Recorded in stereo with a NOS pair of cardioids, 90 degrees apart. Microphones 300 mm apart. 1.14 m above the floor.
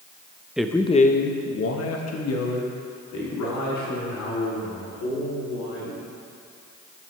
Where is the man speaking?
5° right, 0.7 m; by 6.0 s 75° left, 4.5 m.